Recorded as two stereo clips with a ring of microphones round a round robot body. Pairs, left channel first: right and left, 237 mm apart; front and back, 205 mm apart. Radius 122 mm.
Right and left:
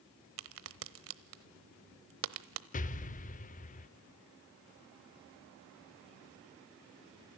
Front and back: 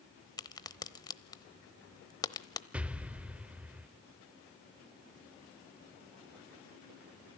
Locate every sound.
0.4 s a crack: 70° left, 0.9 m
2.7 s an explosion: 100° right, 0.6 m